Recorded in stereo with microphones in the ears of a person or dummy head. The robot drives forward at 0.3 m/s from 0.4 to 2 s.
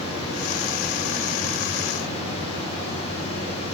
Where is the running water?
50° left (ahead or behind), 1.7 m; by 3.7 s 40° left (ahead or behind), 2.0 m.